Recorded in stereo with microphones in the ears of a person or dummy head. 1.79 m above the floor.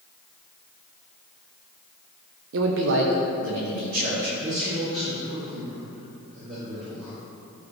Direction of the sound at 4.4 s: 55° right (ahead or behind).